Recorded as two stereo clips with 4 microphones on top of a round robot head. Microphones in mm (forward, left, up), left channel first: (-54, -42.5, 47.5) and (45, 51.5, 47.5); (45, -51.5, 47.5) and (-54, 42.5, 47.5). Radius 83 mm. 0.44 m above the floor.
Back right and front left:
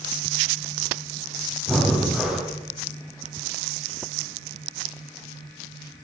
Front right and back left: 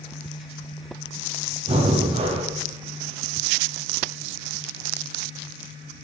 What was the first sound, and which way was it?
Breathing, 130° left.